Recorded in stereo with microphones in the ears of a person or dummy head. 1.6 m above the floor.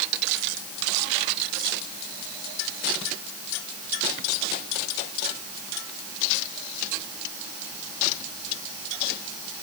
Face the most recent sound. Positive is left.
No sound to turn to.